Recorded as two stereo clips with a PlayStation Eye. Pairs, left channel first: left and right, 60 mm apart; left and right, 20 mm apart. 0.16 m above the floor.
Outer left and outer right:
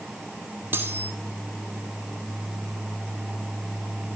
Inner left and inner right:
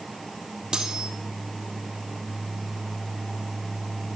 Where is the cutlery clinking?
35° right (ahead or behind), 3.5 m.